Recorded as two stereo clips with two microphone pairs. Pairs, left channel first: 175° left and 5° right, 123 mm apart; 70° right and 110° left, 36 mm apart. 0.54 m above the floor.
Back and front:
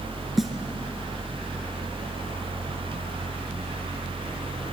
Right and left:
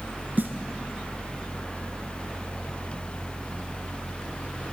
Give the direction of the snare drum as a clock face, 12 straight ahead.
9 o'clock.